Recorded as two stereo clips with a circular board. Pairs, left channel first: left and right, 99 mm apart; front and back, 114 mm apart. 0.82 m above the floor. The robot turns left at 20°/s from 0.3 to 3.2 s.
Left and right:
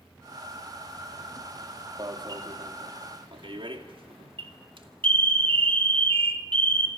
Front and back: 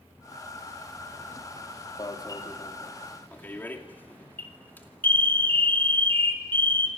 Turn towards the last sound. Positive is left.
turn(degrees=-75)